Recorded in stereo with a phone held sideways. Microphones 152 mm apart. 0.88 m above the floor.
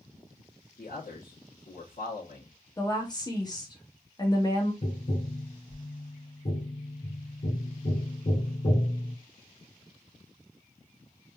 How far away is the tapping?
About 1.7 m.